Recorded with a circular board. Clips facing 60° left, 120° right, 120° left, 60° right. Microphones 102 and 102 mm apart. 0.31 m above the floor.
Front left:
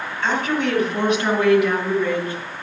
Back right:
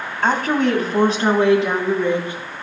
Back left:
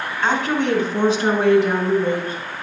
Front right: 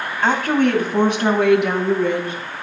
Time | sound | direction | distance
0.2 | a woman speaking | 95° right | 2.5 m